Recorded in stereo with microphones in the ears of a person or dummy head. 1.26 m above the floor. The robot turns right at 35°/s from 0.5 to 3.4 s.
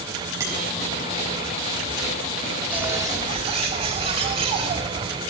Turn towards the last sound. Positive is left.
turn(degrees=-30)  # may be behind; listen again after turning